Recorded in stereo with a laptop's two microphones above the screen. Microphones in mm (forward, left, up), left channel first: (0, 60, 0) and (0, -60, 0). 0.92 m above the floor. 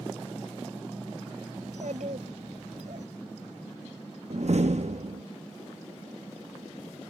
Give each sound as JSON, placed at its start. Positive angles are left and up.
{"t": 1.6, "sound": "a child speaking", "side_deg": -90}
{"t": 4.3, "sound": "a door slam", "side_deg": -65}